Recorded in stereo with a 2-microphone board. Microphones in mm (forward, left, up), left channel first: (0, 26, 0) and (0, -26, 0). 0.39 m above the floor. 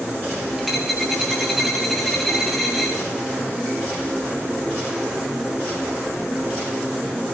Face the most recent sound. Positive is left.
turn(degrees=-5)  # may be behind; listen again after turning